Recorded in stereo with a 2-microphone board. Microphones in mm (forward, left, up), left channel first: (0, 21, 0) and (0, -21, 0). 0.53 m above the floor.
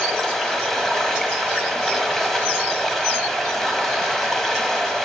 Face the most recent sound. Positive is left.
turn(degrees=5)  # may be behind; listen again after turning